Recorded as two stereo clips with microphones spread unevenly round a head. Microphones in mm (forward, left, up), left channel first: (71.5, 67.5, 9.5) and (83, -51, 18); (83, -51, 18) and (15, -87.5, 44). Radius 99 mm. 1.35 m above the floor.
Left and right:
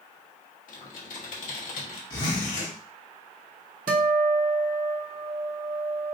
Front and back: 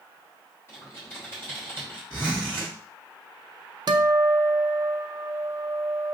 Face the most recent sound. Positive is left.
turn(degrees=-115)